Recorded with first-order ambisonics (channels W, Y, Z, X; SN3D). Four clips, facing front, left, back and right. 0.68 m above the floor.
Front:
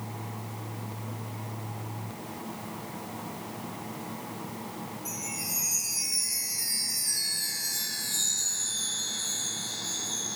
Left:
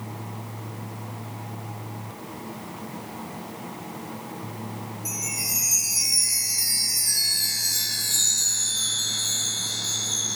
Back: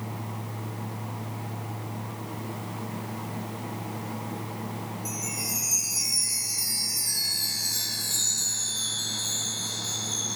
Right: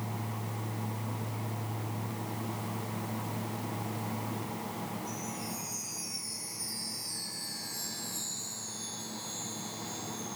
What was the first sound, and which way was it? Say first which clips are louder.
A chime: left 9 dB, back 3 dB; 105° left.